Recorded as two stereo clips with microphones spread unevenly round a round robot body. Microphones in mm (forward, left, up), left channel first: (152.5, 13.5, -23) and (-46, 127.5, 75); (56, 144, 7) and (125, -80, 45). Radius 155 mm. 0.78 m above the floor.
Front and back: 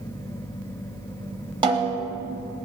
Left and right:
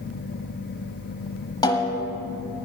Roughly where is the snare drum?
Behind.